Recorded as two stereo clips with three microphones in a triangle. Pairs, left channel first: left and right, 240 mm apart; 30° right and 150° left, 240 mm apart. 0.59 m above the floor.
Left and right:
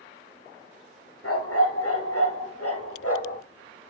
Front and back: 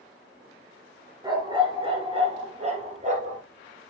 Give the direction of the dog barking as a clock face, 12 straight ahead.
9 o'clock.